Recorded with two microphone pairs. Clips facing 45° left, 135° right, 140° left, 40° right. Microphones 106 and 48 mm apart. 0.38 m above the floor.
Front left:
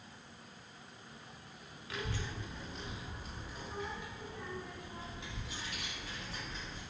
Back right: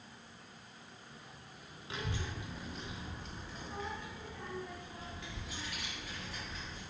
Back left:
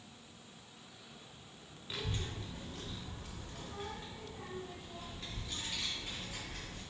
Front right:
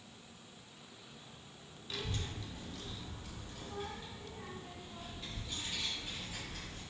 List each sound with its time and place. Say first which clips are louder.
1.9 s a child speaking: even, back left 1 dB; 165° right, 0.7 m; by 6.8 s 105° left, 2.5 m